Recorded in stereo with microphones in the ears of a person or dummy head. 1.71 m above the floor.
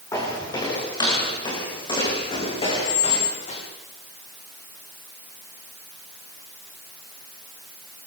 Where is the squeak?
75° left (ahead or behind), 3.5 m.